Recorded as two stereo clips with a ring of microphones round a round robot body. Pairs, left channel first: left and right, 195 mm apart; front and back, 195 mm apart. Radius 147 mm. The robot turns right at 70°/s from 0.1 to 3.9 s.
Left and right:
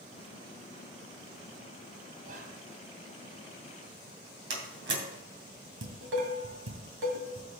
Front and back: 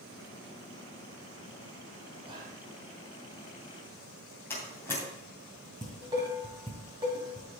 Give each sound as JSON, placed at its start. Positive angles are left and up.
{"t": 2.2, "sound": "whispering", "azimuth_deg": -125, "distance_m": 1.6}
{"t": 4.5, "sound": "a door slam", "azimuth_deg": -80, "distance_m": 2.5}
{"t": 5.8, "sound": "dishes clattering", "azimuth_deg": -110, "distance_m": 1.9}